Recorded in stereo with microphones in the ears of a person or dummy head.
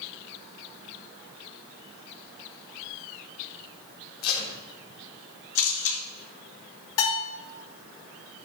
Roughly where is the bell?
Left.